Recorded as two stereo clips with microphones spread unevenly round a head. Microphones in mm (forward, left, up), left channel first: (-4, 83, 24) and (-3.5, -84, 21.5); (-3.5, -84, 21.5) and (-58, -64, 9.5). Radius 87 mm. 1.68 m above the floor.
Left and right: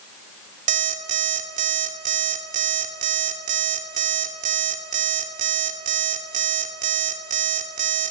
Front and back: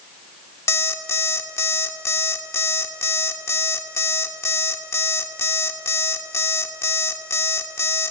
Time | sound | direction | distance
0.7 | an alarm clock | 45° right | 2 m